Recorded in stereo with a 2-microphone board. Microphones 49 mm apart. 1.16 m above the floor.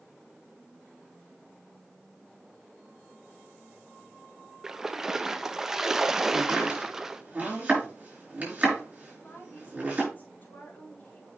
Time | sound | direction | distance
4.6 | a splash | 10° right (ahead or behind) | 0.5 m
6.3 | chopping | 30° right (ahead or behind) | 5.5 m
9.1 | a woman speaking | 45° left (ahead or behind) | 4.5 m